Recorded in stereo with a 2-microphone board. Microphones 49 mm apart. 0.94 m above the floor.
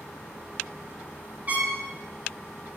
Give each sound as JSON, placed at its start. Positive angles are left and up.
{"t": 1.5, "sound": "a trumpet", "side_deg": -35, "distance_m": 4.0}